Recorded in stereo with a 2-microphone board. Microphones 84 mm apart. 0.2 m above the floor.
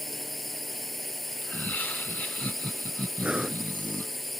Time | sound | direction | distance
0.0 | a drone | 5° left (ahead or behind) | ?
1.4 | laughter | 20° left (ahead or behind) | ?
3.2 | breathing | 15° right (ahead or behind) | ?